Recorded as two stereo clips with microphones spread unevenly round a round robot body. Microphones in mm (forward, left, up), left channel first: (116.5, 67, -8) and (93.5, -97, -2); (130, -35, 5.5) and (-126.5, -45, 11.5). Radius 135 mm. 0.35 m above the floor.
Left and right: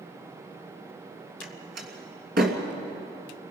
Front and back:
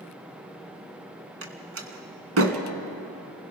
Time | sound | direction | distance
1.4 | a door slam | 145° right | 2.5 m